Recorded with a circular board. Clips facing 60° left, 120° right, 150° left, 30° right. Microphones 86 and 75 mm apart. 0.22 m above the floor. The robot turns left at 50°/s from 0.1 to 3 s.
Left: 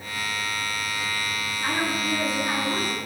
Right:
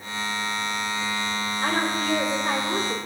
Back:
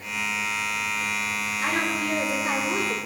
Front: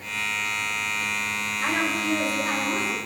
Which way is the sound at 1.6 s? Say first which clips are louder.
Right 1 dB, front 1 dB; 125° right.